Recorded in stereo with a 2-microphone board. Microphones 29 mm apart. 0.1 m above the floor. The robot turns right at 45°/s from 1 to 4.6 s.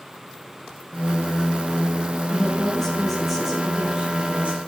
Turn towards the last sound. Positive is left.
turn(degrees=-115)